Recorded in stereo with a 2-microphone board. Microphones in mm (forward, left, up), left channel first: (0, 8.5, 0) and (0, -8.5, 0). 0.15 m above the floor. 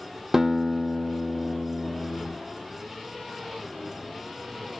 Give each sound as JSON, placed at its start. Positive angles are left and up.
{"t": 0.3, "sound": "a guitar", "side_deg": -25, "distance_m": 1.1}